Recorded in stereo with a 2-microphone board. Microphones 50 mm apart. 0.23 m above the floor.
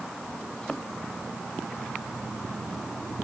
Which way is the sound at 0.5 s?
15° left (ahead or behind).